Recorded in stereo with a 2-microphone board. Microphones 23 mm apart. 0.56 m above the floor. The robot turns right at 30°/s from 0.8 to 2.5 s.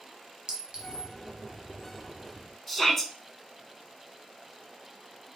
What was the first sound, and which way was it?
A clink, 40° right (ahead or behind).